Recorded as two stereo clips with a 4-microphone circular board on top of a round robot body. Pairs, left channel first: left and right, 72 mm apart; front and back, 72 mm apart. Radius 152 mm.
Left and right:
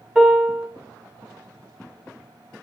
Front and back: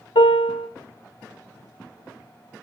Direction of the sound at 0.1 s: 5° right.